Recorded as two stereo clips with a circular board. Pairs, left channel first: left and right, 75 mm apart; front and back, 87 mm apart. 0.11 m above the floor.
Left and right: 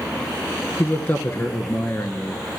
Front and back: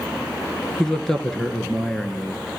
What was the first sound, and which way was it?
A man speaking, 75° left.